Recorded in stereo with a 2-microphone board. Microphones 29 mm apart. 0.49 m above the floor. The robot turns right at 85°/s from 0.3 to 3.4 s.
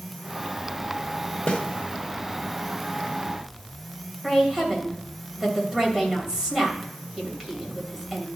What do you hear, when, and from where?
1.5 s a snare drum: 45° left (ahead or behind), 1.4 m; by 1.6 s 40° left (ahead or behind), 1.4 m
4.2 s a woman speaking: 20° right (ahead or behind), 2.5 m